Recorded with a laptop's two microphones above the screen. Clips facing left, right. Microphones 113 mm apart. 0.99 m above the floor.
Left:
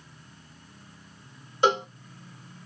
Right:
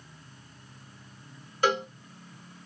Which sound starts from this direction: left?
A cowbell, at 1.6 s.